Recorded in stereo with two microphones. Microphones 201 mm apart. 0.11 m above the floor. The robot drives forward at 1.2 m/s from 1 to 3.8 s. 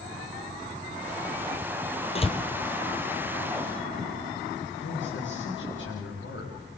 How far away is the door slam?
About 1.8 m.